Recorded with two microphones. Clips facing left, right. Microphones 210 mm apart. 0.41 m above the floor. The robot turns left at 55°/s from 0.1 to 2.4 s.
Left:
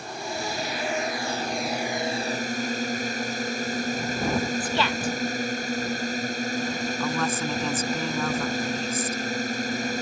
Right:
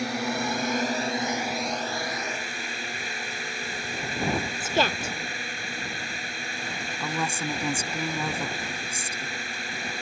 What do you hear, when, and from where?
0.0 s a drone: 95° right; by 10.0 s 135° left
4.6 s a woman speaking: 40° right (ahead or behind)
7.0 s a woman speaking: 15° right (ahead or behind)